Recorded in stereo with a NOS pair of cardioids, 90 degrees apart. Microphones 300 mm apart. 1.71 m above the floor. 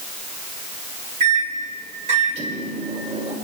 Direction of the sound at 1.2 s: 20° right.